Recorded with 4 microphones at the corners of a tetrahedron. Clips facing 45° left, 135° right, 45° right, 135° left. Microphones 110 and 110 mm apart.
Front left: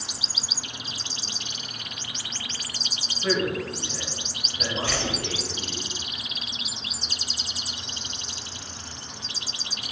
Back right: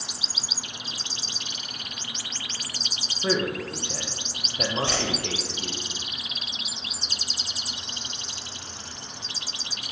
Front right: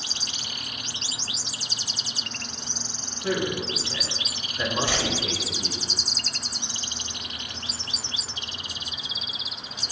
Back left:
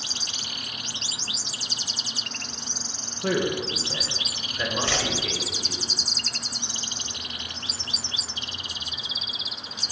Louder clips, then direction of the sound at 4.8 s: Back right 1 dB, even; 110° right.